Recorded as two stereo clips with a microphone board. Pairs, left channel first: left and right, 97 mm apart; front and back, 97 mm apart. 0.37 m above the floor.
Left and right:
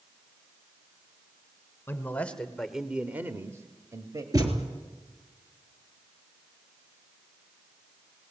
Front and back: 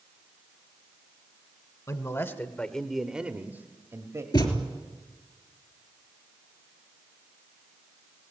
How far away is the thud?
About 3 m.